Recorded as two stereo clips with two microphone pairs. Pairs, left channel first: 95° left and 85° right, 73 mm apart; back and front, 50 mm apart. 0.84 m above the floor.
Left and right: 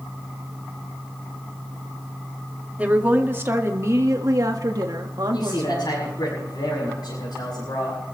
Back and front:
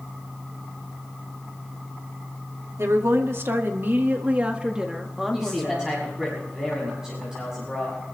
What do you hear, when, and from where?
2.8 s a woman speaking: 20° right, 2 m; by 6.3 s 110° right, 2 m
5.3 s a man speaking: 75° left, 7 m